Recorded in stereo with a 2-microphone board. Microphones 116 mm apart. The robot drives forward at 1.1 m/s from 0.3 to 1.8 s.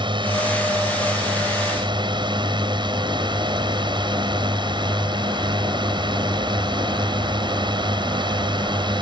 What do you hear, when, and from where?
0.0 s a drone: 40° right (ahead or behind)